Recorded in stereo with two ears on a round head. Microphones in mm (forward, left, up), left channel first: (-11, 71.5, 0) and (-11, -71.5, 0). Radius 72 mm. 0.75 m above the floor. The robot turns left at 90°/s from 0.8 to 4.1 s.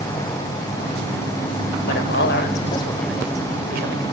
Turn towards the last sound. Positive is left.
turn(degrees=-90)